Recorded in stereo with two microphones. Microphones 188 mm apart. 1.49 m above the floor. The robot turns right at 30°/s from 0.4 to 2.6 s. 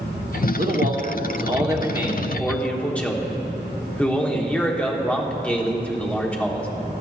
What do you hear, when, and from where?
0.6 s a man speaking: 55° right, 1.1 m; by 6.7 s 5° left, 1.1 m